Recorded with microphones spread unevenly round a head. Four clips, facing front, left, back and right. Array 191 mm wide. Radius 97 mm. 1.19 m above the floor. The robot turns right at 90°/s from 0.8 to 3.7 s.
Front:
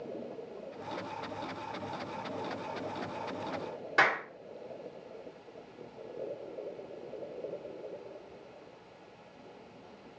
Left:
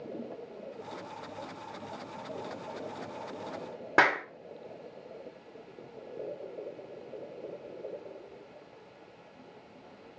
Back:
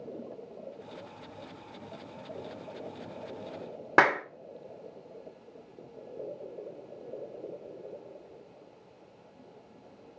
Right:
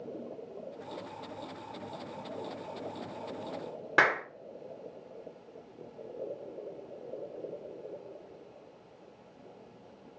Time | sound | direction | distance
4.0 | a clap | 165° left | 1.5 m